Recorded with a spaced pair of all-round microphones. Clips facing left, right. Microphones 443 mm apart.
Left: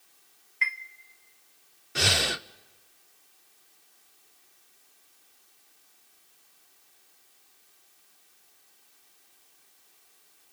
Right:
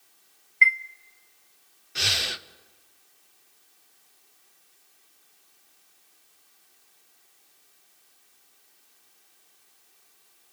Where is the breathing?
70° left (ahead or behind), 0.5 m.